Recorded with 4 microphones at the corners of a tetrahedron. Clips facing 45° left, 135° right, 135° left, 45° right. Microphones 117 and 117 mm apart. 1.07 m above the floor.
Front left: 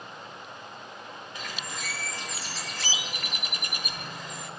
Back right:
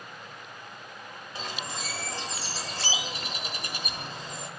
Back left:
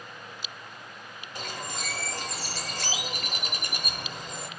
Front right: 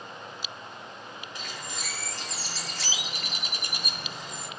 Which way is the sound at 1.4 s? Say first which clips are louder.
Back right 3 dB, back left 6 dB; 170° left.